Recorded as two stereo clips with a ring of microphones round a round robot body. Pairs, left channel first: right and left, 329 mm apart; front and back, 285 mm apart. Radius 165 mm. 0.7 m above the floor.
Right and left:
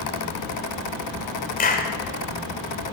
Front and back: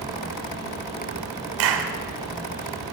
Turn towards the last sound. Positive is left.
turn(degrees=-155)